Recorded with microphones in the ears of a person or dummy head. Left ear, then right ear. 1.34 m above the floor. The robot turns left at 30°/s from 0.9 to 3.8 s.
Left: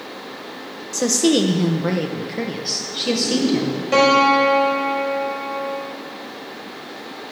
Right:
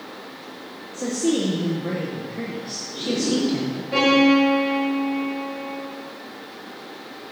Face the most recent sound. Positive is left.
turn(degrees=45)  # may be behind; listen again after turning